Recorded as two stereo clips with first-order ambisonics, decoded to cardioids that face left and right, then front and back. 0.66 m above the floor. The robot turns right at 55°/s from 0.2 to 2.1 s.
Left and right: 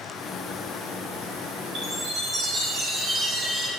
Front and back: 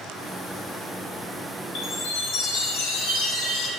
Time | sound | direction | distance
1.8 | a chime | 40° right | 3 m